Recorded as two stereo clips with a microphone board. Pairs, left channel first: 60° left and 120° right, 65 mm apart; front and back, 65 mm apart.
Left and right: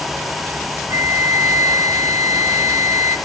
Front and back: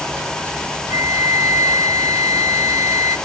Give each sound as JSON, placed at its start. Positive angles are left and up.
{"t": 0.9, "sound": "a flute", "azimuth_deg": -155, "distance_m": 1.0}